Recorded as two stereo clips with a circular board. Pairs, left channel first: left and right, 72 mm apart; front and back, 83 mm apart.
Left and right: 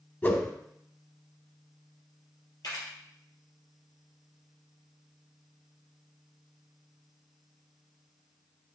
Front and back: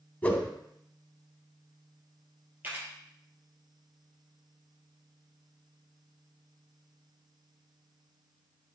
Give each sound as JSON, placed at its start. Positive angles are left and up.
{"t": 0.2, "sound": "a whoosh", "azimuth_deg": 55, "distance_m": 0.9}
{"t": 2.6, "sound": "a camera shutter", "azimuth_deg": 115, "distance_m": 3.5}